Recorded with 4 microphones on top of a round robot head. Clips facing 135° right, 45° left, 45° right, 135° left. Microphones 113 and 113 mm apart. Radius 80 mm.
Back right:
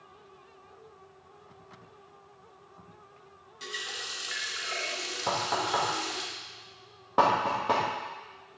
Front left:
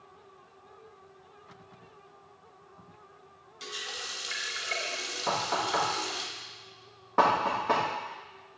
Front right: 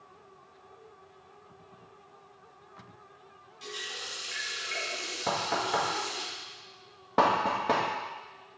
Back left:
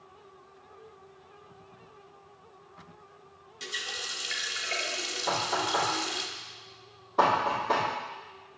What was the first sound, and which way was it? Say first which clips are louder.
A running tap: back right 1 dB, back left 1 dB; 130° left.